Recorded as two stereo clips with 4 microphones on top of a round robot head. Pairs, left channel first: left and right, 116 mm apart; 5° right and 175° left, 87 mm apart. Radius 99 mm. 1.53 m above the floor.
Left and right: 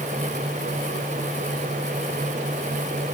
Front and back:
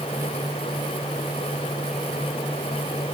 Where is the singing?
I don't hear singing.